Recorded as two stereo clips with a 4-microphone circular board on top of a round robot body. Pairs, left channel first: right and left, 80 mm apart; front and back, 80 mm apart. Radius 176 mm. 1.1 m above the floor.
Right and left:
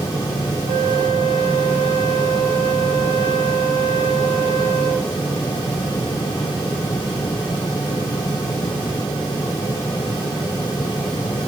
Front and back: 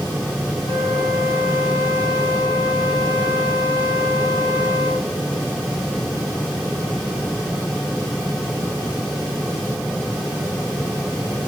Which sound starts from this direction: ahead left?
A flute, at 0.7 s.